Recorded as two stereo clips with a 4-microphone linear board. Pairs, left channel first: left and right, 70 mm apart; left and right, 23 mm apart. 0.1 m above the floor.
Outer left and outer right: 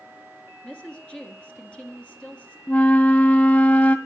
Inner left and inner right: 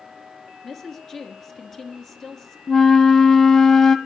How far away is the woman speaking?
About 1.4 m.